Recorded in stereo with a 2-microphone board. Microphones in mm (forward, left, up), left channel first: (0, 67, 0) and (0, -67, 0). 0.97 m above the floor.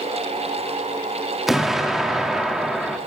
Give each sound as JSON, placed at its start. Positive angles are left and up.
{"t": 1.5, "sound": "an explosion", "side_deg": 0, "distance_m": 2.0}